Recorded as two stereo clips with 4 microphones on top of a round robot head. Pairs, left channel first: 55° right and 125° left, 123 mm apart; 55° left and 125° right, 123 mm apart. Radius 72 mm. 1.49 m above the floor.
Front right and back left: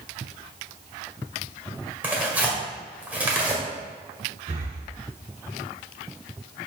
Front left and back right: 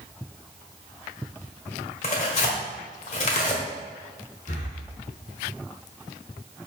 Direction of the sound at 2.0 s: 50° left.